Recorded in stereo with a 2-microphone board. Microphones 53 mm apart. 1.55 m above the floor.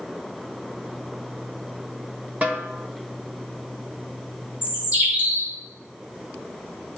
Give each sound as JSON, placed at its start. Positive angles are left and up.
{"t": 2.4, "sound": "a snare drum", "side_deg": -30, "distance_m": 1.0}
{"t": 4.6, "sound": "a bird", "side_deg": -25, "distance_m": 2.5}